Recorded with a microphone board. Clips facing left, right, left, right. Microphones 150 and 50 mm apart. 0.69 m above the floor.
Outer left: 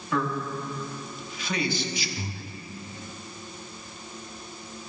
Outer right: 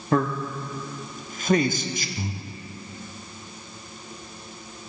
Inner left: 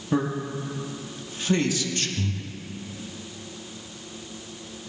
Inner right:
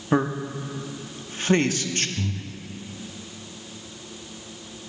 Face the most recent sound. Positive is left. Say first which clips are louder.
# outer right 3 dB, even
turn(degrees=-15)  # may be behind; listen again after turning